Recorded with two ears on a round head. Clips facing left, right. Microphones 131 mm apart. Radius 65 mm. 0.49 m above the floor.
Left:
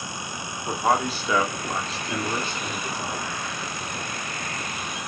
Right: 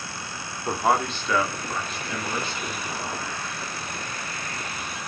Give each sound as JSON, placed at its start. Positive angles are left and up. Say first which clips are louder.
{"t": 0.7, "sound": "a man speaking", "louder": "even", "side_deg": -5, "distance_m": 1.0}